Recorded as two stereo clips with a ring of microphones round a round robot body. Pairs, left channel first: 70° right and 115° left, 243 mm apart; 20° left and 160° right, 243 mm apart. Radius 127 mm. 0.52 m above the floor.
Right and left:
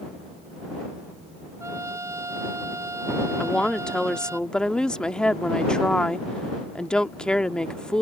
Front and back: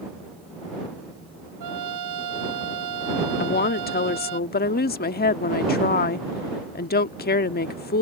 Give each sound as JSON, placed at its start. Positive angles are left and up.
{"t": 1.6, "sound": "a trumpet", "azimuth_deg": -170}
{"t": 3.4, "sound": "a woman speaking", "azimuth_deg": 20}